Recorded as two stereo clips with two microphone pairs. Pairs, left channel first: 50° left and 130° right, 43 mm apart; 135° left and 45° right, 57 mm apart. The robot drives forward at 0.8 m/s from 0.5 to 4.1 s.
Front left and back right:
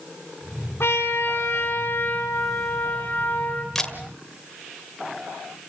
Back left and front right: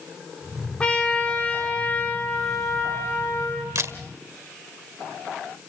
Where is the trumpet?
65° left, 3.5 m; by 3.6 s 105° left, 3 m.